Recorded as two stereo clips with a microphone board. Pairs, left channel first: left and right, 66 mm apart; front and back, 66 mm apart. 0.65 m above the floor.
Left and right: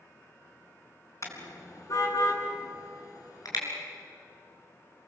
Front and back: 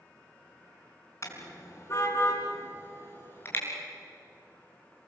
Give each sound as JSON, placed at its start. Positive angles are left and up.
{"t": 1.2, "sound": "a car horn", "azimuth_deg": 45, "distance_m": 4.0}